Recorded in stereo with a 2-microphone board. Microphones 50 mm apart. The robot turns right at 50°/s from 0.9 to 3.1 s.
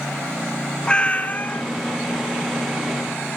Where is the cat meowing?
25° left, 1.0 m; by 1.6 s 60° left, 1.0 m.